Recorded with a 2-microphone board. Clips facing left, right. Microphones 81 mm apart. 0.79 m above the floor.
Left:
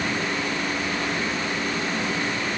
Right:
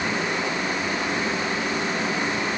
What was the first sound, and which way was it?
Only background noise.